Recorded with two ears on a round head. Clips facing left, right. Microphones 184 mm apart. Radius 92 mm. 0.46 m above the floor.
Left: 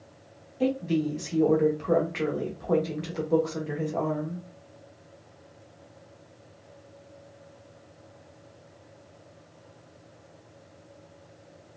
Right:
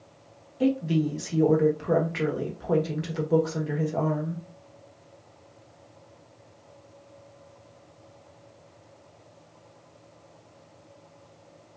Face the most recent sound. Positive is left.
turn(degrees=-5)  # may be behind; listen again after turning